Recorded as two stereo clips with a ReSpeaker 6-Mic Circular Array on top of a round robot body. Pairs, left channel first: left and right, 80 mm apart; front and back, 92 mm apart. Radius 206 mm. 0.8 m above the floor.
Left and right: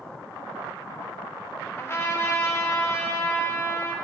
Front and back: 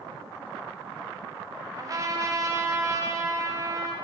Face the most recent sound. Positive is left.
turn(degrees=140)